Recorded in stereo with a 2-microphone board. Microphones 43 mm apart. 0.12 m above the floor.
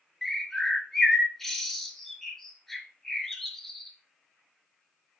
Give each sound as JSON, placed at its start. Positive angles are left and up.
{"t": 0.2, "sound": "a bird", "side_deg": 5, "distance_m": 0.6}